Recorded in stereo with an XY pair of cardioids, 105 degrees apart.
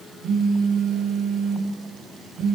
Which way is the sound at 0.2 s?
70° right.